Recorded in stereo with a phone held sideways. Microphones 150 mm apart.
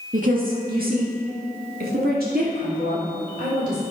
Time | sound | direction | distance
0.1 | a woman speaking | 65° right (ahead or behind) | 2.0 m